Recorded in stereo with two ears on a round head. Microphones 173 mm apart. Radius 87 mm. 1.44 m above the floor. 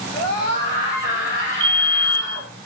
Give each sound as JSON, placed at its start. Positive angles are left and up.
{"t": 0.1, "sound": "a scream", "side_deg": 35, "distance_m": 7.5}
{"t": 1.6, "sound": "a fire alarm", "side_deg": -25, "distance_m": 0.9}